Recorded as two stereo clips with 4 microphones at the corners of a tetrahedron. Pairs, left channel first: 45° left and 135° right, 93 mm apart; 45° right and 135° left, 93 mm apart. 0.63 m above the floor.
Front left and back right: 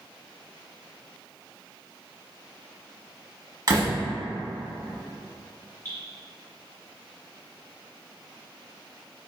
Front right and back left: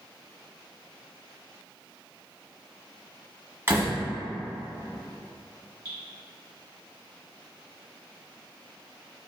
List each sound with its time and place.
3.7 s a door slam: 165° right, 1.0 m
5.8 s dripping: 15° right, 1.5 m